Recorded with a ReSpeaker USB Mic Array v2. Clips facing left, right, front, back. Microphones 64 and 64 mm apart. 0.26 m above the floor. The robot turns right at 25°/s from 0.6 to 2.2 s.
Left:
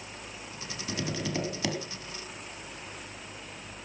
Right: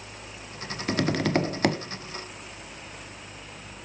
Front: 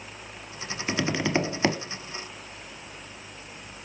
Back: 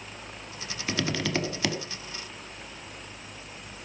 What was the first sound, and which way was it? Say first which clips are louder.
Tapping: right 9 dB, front 3 dB; 75° right.